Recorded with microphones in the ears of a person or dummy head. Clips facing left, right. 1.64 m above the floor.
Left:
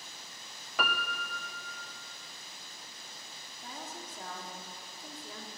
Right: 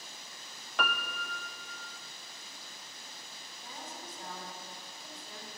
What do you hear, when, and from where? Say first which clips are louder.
0.8 s a piano: left 1 dB; centre (ahead or behind), 0.6 m
3.6 s a woman speaking: left 2 dB; 60° left (ahead or behind), 3 m